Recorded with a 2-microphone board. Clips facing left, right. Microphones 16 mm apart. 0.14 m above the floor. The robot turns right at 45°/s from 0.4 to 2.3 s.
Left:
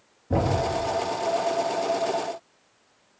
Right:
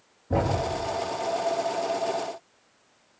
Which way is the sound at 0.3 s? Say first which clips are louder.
Left 2 dB; centre (ahead or behind).